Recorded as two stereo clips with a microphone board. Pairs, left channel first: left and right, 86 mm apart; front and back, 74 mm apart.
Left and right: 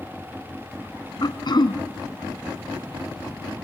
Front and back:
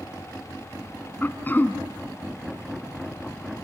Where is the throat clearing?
65° left, 1.3 m.